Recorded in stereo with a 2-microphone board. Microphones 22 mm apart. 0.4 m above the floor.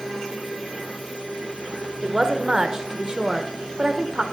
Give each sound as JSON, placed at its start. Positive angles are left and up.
{"t": 2.0, "sound": "a woman speaking", "side_deg": -25, "distance_m": 0.9}